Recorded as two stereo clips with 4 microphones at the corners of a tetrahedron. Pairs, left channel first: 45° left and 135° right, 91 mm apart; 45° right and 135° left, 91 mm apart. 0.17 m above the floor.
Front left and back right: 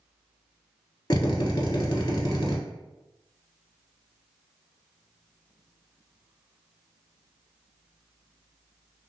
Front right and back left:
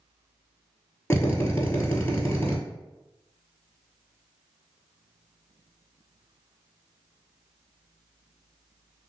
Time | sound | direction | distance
1.1 | a drill | 10° left | 1.0 m